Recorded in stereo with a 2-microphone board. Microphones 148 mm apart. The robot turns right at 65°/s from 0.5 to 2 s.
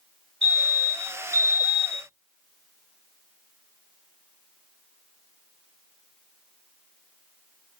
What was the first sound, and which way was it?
A fire alarm, 95° right.